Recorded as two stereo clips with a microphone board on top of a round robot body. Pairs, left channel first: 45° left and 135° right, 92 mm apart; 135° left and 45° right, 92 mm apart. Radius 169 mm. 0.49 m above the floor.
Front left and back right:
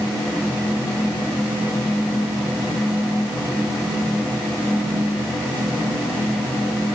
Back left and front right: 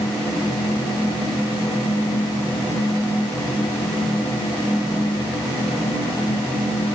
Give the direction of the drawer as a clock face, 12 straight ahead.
No drawer in this recording.